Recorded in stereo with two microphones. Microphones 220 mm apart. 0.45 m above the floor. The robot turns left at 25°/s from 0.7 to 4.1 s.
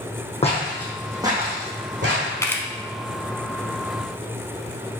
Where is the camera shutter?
15° left (ahead or behind), 0.7 m; by 2.6 s 10° left (ahead or behind), 0.7 m.